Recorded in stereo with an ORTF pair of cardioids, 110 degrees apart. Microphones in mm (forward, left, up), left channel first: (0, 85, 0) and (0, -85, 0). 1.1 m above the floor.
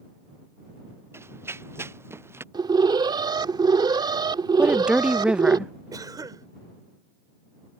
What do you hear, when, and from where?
1.1 s running footsteps: 15° right
2.5 s an alarm: 25° right
4.6 s a woman speaking: 5° right
5.9 s a cough: 20° right